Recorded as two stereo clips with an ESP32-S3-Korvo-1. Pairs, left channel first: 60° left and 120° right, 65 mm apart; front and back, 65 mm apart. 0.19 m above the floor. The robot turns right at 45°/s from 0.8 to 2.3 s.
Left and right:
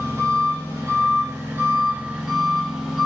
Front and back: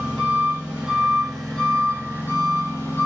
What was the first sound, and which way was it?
An engine running, 110° right.